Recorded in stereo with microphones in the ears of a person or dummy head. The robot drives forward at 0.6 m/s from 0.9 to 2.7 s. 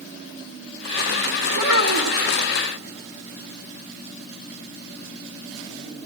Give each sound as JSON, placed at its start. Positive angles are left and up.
{"t": 1.5, "sound": "a child speaking", "side_deg": 65, "distance_m": 1.6}